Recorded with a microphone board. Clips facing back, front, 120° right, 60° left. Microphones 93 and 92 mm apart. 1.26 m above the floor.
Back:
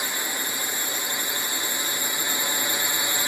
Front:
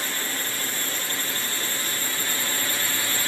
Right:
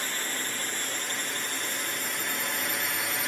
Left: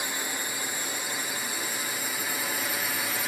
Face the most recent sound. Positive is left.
turn(degrees=145)